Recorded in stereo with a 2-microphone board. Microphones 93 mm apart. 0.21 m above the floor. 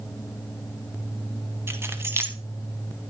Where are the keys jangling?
25° right (ahead or behind), 0.9 m.